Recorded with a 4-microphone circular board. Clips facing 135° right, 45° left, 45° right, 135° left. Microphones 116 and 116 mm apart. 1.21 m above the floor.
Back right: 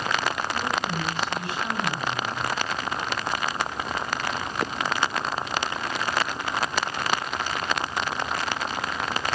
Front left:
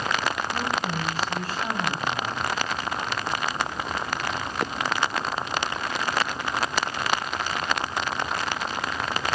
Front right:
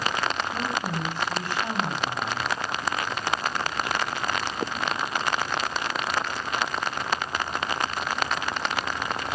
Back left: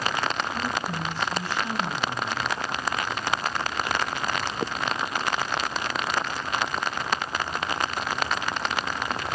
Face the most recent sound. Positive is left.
turn(degrees=-10)